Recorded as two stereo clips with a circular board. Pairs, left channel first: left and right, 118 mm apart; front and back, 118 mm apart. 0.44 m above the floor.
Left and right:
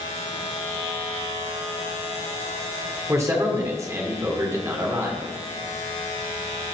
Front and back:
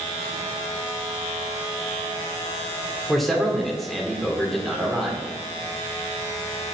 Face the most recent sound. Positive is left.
turn(degrees=-85)